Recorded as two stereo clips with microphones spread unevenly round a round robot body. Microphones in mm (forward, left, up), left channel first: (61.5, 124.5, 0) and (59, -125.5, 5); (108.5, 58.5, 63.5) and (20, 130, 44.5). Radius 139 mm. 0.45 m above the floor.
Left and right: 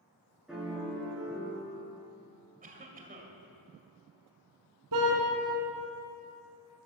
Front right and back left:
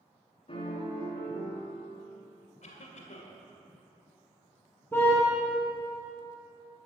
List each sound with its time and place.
0.5 s a piano: 5° right, 4 m
2.6 s a cough: 35° right, 2 m
4.9 s a car horn: 120° right, 2 m